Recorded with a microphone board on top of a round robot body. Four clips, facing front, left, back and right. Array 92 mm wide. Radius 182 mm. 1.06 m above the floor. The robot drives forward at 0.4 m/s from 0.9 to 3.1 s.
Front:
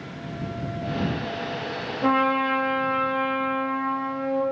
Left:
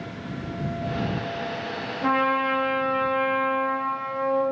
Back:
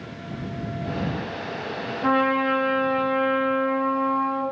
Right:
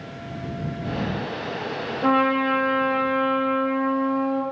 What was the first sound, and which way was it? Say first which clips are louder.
A trumpet: right 2 dB, even; 60° right.